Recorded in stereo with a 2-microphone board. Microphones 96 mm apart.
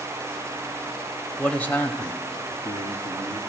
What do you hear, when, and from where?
1.4 s a man speaking: 5° left (ahead or behind), 0.9 m; by 3.4 s 50° left (ahead or behind), 2 m